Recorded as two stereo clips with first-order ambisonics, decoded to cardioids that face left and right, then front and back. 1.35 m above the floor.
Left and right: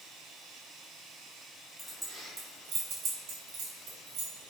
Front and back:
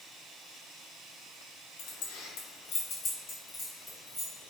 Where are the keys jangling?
Straight ahead, 0.8 m; by 4.5 s 100° right, 1.2 m.